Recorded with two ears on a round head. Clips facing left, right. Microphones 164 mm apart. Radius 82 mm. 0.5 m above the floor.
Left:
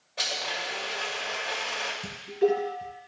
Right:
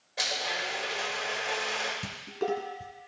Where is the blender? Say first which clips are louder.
Even; 15° right (ahead or behind), 1.8 m.